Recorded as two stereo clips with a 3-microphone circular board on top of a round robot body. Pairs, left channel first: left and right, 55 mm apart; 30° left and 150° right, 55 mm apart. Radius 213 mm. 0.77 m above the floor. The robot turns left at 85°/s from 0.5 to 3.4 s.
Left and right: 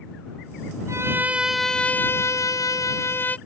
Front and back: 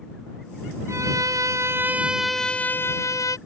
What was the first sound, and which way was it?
A violin, 120° right.